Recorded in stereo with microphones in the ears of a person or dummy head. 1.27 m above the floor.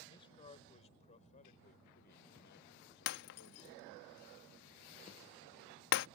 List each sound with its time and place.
0.1 s a man speaking: 25° left (ahead or behind); by 4.1 s 70° left (ahead or behind)
3.1 s breaking glass: 60° left (ahead or behind)